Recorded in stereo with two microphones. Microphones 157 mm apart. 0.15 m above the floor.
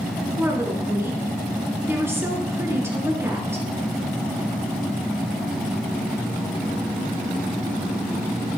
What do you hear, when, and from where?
0.4 s a woman speaking: 15° right (ahead or behind), 2.5 m